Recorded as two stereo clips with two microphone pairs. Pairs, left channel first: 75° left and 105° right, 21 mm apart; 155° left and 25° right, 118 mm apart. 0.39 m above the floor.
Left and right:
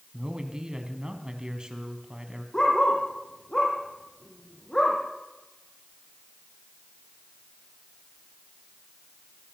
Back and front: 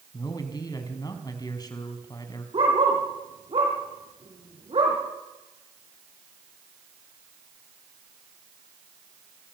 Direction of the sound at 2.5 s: 15° left.